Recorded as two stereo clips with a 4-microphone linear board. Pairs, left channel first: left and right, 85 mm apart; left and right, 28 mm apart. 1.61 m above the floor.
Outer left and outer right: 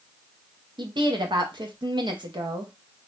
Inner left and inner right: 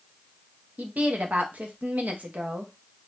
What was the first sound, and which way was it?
A woman speaking, 65° right (ahead or behind).